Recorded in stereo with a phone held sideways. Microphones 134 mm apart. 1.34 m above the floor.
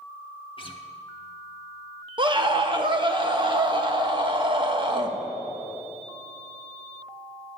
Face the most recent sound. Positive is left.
turn(degrees=-35)  # may be behind; listen again after turning